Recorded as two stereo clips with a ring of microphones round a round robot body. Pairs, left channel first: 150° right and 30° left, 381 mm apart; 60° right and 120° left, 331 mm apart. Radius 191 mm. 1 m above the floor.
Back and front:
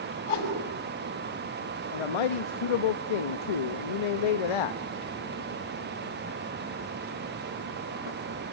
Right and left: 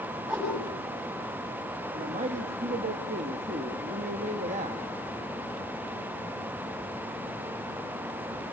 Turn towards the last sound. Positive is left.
turn(degrees=-165)